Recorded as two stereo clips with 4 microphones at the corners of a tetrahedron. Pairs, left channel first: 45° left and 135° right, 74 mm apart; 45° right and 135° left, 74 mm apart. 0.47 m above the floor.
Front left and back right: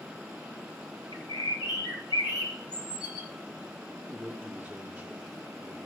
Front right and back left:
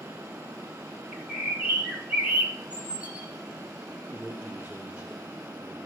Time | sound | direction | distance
1.1 | a bird | 60° left | 1.5 m
4.0 | a man speaking | 160° left | 1.5 m